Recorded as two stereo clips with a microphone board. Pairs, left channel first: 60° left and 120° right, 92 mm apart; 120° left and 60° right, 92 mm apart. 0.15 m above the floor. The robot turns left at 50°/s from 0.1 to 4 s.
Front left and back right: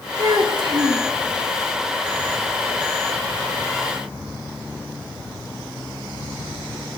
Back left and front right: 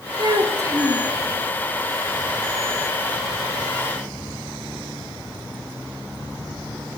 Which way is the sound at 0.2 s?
85° right.